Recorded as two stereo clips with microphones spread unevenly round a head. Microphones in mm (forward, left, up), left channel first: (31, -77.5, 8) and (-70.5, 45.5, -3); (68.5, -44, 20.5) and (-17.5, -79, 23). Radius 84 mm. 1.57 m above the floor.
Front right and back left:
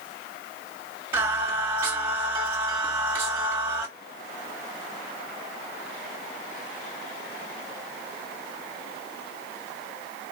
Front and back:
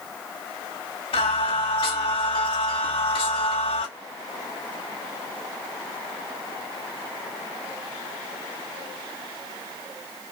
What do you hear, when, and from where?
1.1 s singing: 50° left, 1.8 m